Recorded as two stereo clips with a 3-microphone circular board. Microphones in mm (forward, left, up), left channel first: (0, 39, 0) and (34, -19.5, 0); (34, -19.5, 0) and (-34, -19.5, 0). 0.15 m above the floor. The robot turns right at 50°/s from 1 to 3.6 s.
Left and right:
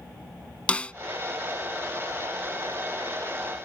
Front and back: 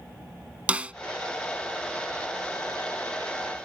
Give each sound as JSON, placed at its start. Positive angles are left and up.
{"t": 0.7, "sound": "a snare drum", "azimuth_deg": 150}